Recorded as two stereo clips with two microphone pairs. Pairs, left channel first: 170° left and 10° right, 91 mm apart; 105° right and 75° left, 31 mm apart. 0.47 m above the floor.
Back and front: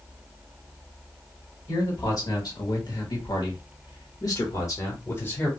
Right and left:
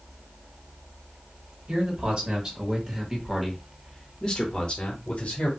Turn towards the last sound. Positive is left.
turn(degrees=-125)